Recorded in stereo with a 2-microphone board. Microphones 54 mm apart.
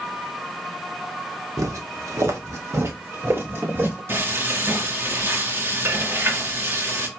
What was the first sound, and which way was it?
Footsteps, 80° right.